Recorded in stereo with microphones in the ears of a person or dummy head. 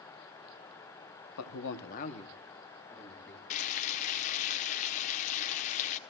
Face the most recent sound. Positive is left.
turn(degrees=40)  # may be behind; listen again after turning